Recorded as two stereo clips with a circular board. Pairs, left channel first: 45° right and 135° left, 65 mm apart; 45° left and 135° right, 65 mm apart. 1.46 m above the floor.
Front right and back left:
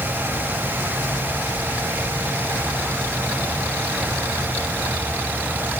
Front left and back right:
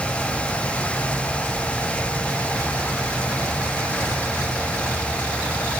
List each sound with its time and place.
Only background noise.